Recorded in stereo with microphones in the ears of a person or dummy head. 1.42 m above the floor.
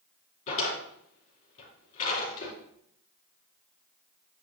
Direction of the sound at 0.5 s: 40° left (ahead or behind).